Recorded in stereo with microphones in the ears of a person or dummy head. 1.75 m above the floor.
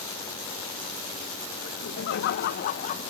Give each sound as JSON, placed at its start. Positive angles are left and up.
{"t": 1.6, "sound": "laughter", "side_deg": 65}